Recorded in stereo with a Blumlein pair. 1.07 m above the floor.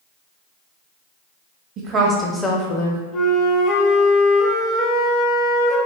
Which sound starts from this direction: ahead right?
A woman speaking, at 1.8 s.